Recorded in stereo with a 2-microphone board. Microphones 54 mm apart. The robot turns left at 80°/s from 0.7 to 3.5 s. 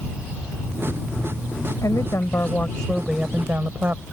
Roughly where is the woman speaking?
Left.